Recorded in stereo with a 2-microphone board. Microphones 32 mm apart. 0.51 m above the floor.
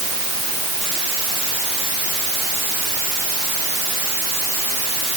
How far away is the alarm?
I don't hear an alarm.